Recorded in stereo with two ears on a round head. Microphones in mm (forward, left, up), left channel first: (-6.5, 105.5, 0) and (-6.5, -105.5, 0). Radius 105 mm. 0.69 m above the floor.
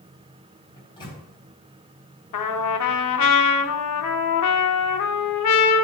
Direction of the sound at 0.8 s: 20° left (ahead or behind).